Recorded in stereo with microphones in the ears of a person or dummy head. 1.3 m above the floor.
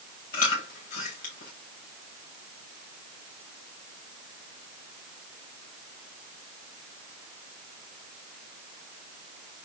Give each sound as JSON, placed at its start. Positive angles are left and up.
{"t": 0.3, "sound": "chewing", "side_deg": 45, "distance_m": 1.7}